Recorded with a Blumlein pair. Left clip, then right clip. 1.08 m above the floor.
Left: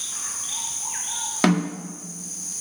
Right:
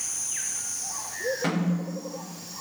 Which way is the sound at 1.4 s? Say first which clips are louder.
Left 6 dB; 45° left.